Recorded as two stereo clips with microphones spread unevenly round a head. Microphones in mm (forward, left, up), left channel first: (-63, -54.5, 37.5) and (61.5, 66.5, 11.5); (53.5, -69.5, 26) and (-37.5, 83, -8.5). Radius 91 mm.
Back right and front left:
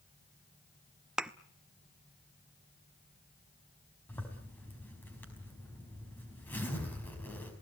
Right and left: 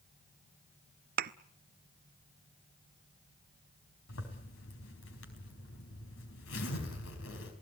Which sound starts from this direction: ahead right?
A zipper, at 4.1 s.